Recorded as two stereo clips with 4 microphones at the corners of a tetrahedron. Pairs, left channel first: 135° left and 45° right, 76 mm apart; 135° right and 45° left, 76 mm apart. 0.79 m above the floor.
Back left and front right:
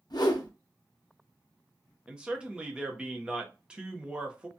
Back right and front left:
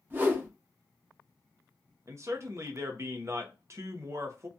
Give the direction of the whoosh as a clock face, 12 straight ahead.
8 o'clock.